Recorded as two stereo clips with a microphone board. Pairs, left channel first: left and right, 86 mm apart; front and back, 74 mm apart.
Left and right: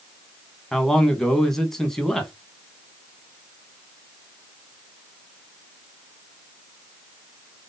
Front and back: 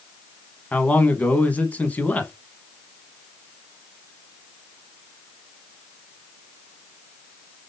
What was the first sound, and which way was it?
A man speaking, 15° left.